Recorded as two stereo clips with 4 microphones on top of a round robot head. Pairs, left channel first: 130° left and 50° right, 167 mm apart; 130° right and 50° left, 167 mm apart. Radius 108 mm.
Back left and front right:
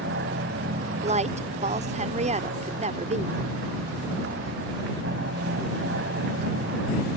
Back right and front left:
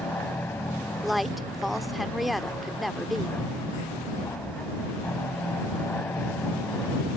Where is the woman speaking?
40° right.